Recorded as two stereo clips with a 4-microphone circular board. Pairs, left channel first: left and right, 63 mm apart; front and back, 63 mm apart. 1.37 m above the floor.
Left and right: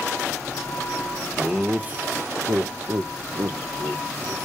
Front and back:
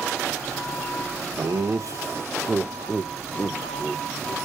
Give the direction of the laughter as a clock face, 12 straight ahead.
6 o'clock.